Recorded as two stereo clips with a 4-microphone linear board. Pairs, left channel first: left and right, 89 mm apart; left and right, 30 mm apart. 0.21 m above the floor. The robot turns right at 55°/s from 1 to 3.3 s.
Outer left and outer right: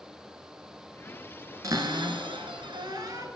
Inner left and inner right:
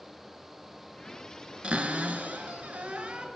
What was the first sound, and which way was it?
A cupboard door, 140° right.